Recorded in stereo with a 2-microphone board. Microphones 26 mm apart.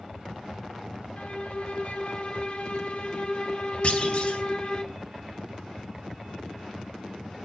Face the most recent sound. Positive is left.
turn(degrees=55)  # may be behind; listen again after turning